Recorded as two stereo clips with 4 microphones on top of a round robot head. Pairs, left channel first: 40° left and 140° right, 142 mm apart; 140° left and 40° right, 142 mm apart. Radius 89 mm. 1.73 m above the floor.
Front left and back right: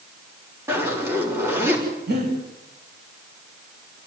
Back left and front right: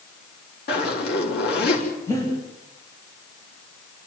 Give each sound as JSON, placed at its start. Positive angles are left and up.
{"t": 0.7, "sound": "a zipper", "azimuth_deg": 145, "distance_m": 6.0}
{"t": 2.1, "sound": "breathing", "azimuth_deg": -150, "distance_m": 10.0}